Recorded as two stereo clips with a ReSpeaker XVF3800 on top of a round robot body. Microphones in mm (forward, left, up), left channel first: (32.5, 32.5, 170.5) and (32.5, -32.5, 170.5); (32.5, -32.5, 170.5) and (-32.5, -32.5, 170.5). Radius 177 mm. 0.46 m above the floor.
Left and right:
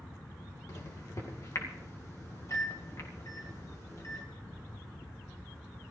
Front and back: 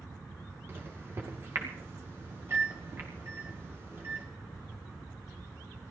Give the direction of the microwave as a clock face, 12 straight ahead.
8 o'clock.